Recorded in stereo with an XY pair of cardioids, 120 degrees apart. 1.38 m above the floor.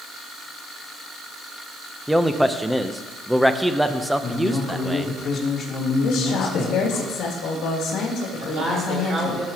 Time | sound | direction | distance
2.1 | a man speaking | 5° right | 0.7 m
4.2 | a man speaking | 35° left | 3.5 m
6.0 | a woman speaking | 65° left | 2.5 m
8.4 | a man speaking | 35° right | 4.5 m